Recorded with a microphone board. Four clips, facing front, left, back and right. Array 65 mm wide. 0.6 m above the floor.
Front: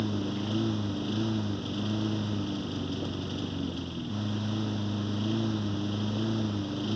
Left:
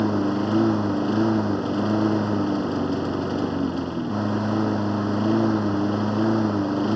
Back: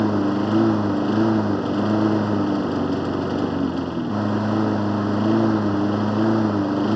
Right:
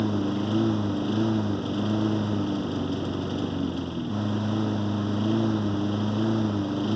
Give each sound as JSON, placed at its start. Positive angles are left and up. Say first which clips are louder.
{"t": 0.0, "sound": "a lawn mower", "louder": "left 4 dB, back 12 dB", "azimuth_deg": 155}